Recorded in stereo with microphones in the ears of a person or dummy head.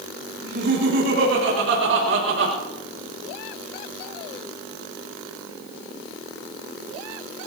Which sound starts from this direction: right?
Laughter, at 0.4 s.